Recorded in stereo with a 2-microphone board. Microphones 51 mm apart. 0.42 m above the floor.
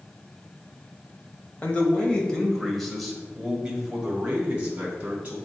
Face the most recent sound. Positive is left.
turn(degrees=-30)  # may be behind; listen again after turning